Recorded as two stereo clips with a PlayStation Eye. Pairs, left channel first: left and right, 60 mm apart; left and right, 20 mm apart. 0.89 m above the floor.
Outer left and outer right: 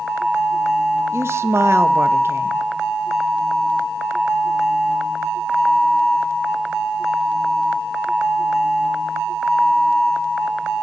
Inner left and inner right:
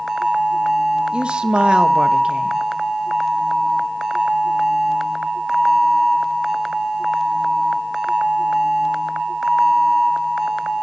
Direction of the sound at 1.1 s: 50° right (ahead or behind).